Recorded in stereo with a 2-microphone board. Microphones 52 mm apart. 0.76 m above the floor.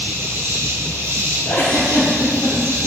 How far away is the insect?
About 1.7 m.